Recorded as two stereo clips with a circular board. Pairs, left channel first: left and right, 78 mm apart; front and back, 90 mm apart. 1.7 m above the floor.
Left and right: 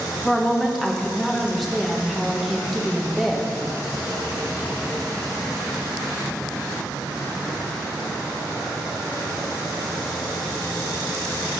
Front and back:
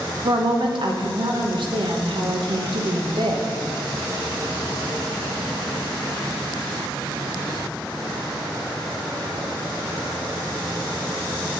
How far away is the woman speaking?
About 1.3 m.